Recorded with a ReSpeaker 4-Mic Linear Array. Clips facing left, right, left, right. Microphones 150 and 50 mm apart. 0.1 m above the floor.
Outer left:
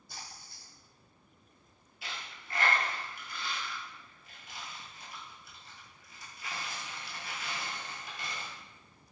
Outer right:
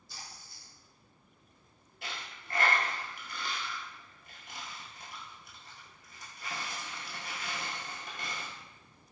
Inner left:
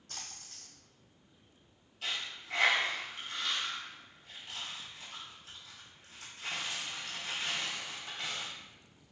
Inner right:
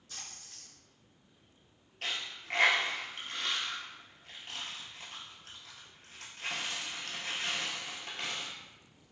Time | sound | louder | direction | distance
0.1 | a splash | outer left 1 dB, inner left 1 dB | 55° left (ahead or behind) | 1.1 m
2.0 | a dropped coin | outer right 1 dB, inner right 1 dB | 55° right (ahead or behind) | 0.9 m